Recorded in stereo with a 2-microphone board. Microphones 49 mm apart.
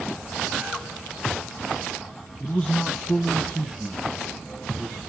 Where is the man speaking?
15° left (ahead or behind), 1.1 m; by 5.0 s 20° right (ahead or behind), 2.5 m.